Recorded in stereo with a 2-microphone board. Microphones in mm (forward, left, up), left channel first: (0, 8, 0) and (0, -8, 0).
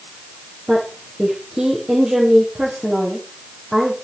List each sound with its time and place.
0.7 s a woman speaking: 50° right (ahead or behind), 7 m